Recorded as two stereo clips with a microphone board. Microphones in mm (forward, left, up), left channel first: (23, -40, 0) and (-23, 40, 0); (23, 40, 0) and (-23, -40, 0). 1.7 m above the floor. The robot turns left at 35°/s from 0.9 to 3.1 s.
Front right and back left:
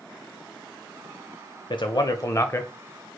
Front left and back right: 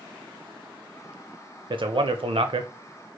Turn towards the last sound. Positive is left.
turn(degrees=-140)